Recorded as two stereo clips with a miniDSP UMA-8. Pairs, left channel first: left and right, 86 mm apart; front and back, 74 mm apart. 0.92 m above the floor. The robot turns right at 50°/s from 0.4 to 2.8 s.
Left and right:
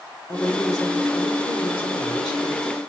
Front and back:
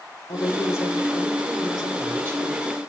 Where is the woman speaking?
30° left, 2 m; by 2.8 s 150° left, 2 m.